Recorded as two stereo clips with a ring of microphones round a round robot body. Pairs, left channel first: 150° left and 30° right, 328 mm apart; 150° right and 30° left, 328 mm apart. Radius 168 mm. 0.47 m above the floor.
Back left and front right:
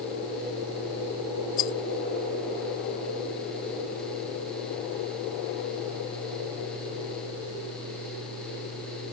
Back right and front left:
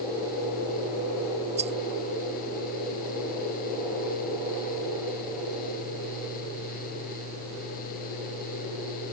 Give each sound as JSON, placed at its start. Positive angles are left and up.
{"t": 1.6, "sound": "a rattle", "azimuth_deg": 100}